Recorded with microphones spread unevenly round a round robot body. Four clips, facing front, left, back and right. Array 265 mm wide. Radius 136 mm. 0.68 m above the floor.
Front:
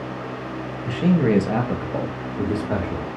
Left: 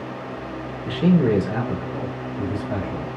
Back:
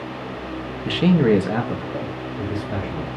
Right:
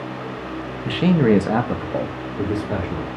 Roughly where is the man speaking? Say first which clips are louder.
Right 2 dB, back 3 dB; behind right.